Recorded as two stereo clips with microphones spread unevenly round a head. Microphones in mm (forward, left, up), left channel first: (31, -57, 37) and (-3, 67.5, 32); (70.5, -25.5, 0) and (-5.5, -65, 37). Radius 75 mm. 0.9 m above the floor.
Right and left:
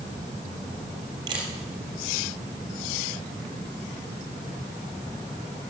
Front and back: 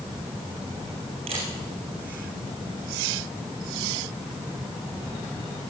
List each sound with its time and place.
1.3 s a camera shutter: 165° left, 5 m